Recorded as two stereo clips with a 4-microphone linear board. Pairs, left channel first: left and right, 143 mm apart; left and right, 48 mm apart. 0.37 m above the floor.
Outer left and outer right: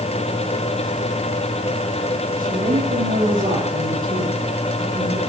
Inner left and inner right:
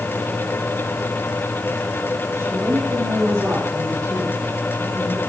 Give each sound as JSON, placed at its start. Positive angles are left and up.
{"t": 2.4, "sound": "a woman speaking", "side_deg": -75, "distance_m": 9.5}